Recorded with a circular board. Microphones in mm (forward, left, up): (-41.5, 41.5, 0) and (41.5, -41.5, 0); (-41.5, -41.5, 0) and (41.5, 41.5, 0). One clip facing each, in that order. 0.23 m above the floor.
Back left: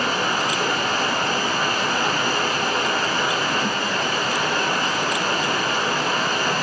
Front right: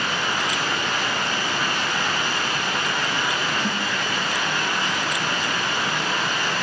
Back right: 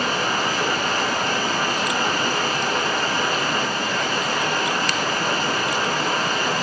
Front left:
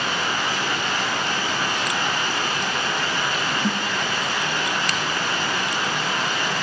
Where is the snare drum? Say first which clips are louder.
Back left 2 dB, front left 1 dB; 35° left, 9 m.